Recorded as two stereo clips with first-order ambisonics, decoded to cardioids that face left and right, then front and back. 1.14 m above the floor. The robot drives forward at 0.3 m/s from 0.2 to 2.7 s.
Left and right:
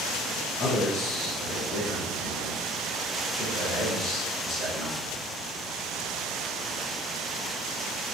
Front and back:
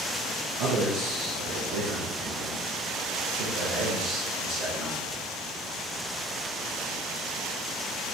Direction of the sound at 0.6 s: 150° left.